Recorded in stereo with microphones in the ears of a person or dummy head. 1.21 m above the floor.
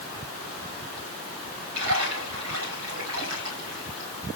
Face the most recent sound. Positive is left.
turn(degrees=-85)